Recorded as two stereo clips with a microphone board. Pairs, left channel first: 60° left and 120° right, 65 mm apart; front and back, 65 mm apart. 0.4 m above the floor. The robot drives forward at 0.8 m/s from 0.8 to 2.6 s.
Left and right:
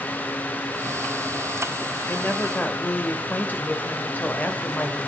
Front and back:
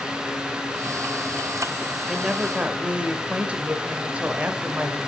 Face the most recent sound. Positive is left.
turn(degrees=115)